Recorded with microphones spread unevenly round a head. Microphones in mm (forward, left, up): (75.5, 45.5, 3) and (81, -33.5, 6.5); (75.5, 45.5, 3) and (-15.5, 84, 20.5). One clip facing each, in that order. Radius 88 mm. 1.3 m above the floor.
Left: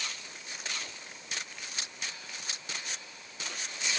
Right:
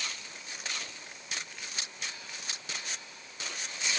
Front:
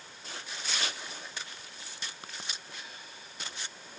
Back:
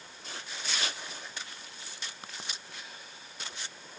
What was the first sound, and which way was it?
Only background noise.